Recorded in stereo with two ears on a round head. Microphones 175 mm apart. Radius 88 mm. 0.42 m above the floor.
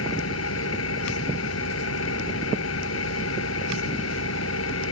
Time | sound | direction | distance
0.0 | an engine running | 80° left | ?